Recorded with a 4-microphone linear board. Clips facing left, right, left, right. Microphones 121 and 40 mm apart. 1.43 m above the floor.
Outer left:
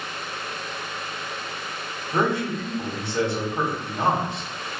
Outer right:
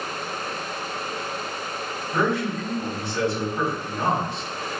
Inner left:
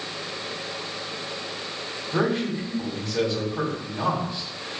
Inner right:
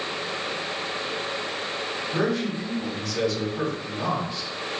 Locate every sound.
2.1 s a man speaking: 25° left (ahead or behind), 1.3 m